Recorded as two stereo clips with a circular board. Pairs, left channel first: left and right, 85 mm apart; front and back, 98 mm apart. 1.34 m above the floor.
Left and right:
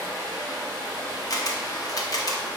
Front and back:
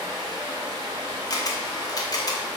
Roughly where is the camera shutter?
Ahead left.